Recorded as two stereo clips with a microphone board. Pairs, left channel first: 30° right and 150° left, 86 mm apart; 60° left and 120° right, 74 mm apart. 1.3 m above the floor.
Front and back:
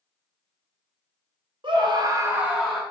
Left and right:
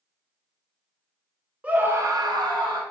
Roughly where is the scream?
Behind.